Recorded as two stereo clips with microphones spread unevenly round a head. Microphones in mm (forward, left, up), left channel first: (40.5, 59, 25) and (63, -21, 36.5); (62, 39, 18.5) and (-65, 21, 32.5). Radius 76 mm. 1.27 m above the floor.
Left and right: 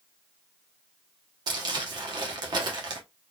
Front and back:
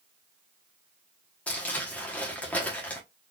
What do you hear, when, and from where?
1.5 s crumpling: 80° right, 1.0 m